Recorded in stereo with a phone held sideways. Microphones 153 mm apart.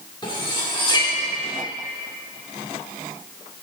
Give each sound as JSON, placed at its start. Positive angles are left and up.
{"t": 0.2, "sound": "cutlery clinking", "side_deg": 30, "distance_m": 2.0}